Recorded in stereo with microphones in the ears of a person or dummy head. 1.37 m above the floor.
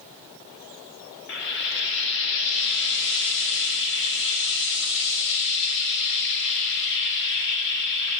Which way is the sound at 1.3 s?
60° left (ahead or behind).